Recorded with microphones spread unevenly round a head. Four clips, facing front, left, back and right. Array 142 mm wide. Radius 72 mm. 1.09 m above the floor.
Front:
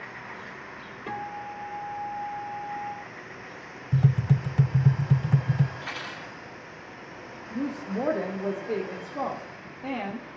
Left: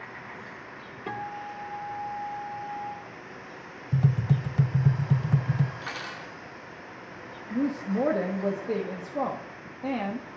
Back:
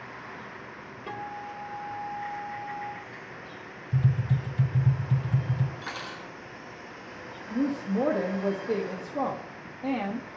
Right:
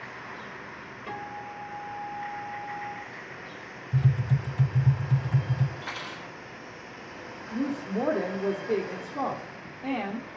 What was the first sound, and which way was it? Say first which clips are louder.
A guitar: left 3 dB, front 2 dB; 90° left.